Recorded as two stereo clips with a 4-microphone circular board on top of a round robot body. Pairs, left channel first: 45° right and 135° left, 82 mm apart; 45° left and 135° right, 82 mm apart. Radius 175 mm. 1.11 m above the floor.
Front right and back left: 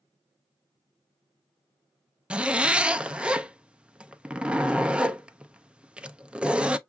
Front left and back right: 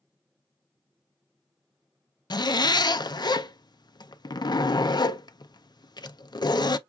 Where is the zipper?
60° left, 0.7 m.